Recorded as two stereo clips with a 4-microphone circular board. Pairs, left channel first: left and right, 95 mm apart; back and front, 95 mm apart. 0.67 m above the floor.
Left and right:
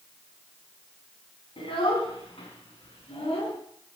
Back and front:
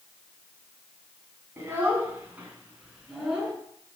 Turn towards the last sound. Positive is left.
turn(degrees=85)